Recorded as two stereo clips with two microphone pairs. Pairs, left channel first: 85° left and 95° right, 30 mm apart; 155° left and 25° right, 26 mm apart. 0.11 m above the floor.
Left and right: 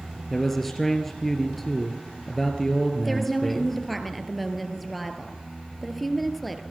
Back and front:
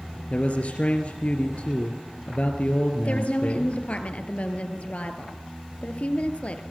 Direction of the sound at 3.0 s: 170° left.